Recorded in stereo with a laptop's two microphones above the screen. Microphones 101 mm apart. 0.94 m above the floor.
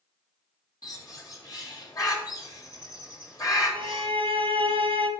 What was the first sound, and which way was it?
A bird, 35° left (ahead or behind).